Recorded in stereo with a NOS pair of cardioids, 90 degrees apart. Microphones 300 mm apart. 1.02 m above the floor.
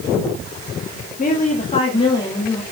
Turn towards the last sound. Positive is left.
turn(degrees=10)